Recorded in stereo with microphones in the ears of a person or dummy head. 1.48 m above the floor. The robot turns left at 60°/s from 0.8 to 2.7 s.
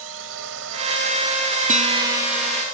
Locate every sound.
0.0 s a drone: 115° right; by 2.7 s 135° left
1.7 s a guitar: 140° right; by 2.6 s 165° left